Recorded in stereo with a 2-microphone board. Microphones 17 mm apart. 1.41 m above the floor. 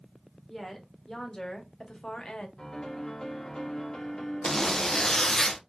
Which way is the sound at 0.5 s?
20° left (ahead or behind).